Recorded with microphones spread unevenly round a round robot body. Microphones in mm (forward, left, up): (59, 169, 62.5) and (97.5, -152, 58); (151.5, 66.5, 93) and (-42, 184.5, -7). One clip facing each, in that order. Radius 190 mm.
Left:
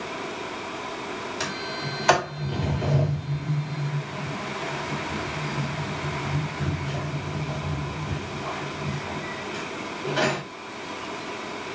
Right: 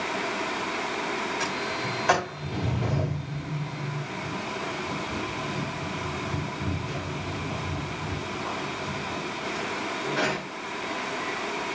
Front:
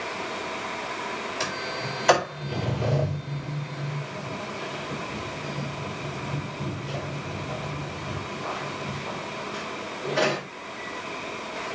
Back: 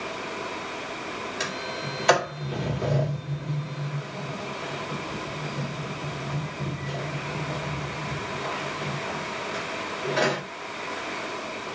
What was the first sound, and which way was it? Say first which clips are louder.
A sliding door: right 1 dB, even; 65° left.